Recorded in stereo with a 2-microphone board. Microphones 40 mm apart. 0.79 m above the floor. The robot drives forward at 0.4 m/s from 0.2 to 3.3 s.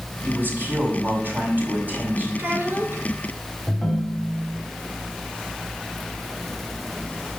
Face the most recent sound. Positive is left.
turn(degrees=5)  # may be behind; listen again after turning